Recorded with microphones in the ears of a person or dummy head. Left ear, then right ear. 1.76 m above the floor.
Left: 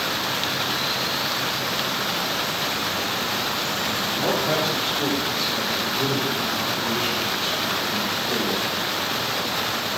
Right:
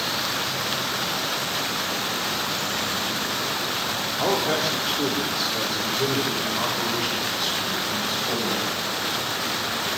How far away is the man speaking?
About 5.5 m.